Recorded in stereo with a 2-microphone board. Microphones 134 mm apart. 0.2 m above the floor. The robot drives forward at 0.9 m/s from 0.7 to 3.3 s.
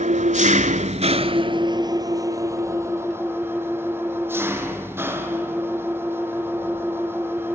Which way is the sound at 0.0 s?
65° right (ahead or behind).